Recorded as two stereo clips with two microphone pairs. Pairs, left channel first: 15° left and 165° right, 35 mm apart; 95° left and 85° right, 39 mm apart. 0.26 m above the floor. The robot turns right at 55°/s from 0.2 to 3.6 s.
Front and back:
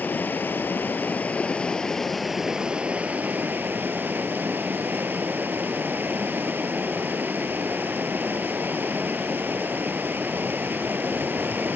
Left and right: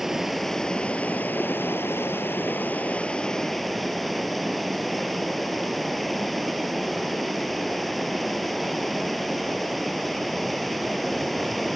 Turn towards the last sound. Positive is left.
turn(degrees=-175)